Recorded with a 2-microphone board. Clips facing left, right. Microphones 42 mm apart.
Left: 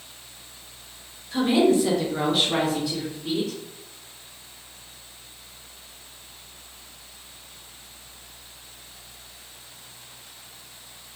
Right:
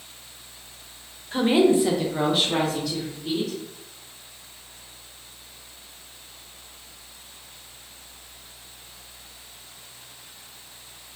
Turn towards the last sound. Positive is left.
turn(degrees=25)  # may be behind; listen again after turning